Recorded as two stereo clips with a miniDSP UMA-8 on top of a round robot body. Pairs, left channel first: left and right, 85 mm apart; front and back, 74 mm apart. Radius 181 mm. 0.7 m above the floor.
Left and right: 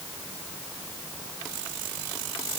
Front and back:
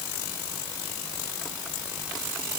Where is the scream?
No scream in this recording.